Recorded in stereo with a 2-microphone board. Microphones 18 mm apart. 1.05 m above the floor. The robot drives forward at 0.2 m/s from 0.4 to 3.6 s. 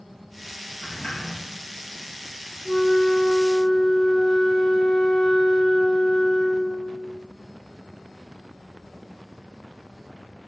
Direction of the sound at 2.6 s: 35° left (ahead or behind).